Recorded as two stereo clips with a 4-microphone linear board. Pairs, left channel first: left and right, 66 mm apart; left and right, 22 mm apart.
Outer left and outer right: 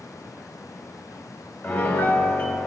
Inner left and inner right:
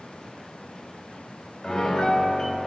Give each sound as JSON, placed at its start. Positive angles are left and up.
{"t": 1.6, "sound": "a piano", "side_deg": 25, "distance_m": 0.6}